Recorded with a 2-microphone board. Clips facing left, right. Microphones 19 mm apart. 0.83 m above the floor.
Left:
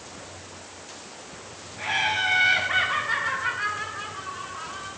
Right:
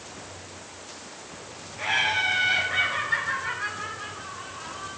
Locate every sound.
1.8 s laughter: 10° right (ahead or behind), 1.1 m; by 4.9 s 60° left (ahead or behind), 4.5 m